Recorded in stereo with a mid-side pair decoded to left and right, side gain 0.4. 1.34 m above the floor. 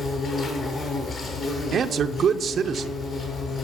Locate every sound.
0.0 s an insect: 55° left, 6.5 m
1.7 s a man speaking: 65° right, 0.6 m